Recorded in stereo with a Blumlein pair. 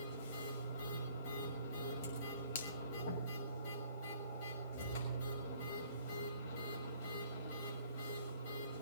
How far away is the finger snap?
About 2 m.